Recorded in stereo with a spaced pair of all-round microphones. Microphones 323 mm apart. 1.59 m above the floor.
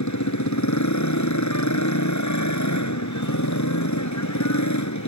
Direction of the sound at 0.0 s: 60° left (ahead or behind).